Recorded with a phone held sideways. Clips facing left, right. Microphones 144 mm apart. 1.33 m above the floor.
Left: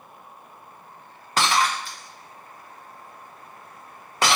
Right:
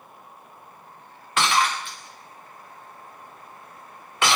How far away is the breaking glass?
About 0.5 m.